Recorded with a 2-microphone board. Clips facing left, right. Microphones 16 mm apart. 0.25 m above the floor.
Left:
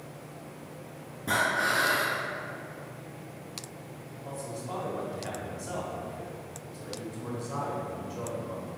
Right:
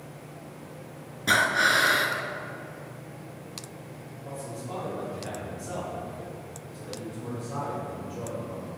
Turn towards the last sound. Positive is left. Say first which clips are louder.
# even
turn(degrees=20)  # may be behind; listen again after turning